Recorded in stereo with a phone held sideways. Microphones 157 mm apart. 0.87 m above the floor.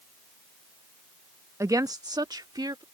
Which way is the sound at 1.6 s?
20° right (ahead or behind).